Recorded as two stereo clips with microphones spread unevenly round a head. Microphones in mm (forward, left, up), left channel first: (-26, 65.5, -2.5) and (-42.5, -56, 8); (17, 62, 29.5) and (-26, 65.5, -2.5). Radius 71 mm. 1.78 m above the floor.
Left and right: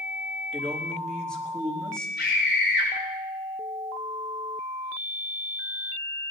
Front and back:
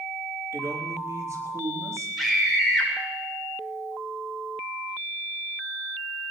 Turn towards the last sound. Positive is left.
turn(degrees=75)